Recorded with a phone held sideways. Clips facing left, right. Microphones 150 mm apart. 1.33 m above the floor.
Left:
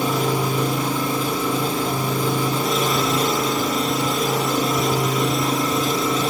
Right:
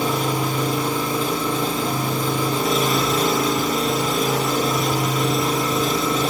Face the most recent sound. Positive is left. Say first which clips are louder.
# left 1 dB
turn(degrees=5)  # may be behind; listen again after turning